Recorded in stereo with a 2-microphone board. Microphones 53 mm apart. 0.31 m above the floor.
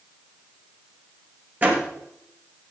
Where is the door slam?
35° right (ahead or behind), 3.5 m.